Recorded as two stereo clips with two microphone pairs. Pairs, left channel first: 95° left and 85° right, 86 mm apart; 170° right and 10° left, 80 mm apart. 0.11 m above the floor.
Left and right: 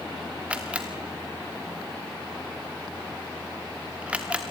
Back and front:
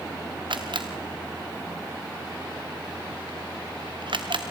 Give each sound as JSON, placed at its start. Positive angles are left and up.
{"t": 0.5, "sound": "a camera shutter", "azimuth_deg": -10, "distance_m": 2.0}